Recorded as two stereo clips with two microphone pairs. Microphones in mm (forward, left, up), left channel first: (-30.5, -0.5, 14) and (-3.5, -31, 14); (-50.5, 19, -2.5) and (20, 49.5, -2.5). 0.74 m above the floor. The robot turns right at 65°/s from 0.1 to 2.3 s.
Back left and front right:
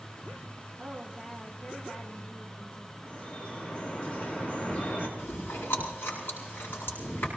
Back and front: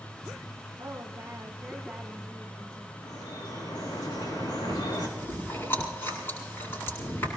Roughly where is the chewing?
Behind left.